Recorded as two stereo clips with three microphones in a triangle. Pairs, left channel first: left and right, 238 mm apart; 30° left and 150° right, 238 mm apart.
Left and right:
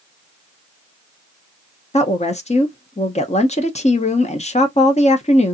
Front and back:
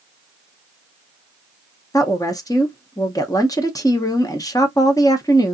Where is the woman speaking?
85° left, 0.6 m.